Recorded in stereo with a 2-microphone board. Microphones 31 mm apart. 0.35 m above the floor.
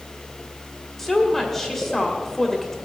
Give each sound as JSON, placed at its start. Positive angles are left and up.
{"t": 1.0, "sound": "a woman speaking", "side_deg": 10, "distance_m": 1.5}